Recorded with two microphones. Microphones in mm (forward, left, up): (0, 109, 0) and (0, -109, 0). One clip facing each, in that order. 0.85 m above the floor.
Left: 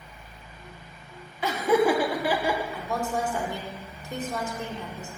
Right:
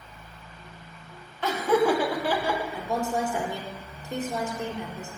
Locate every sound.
1.4 s laughter: 10° left (ahead or behind), 1.3 m
2.7 s a woman speaking: 20° right (ahead or behind), 1.9 m